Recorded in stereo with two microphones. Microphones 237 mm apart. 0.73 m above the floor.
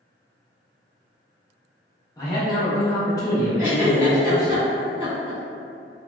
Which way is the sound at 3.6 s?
15° right (ahead or behind).